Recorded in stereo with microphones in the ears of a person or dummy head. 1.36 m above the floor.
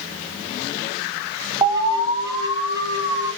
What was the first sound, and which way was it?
An alarm, 20° right (ahead or behind).